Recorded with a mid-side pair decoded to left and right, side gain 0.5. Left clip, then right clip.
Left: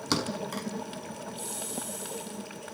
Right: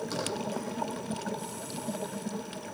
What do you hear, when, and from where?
0.1 s a thud: 65° left, 5 m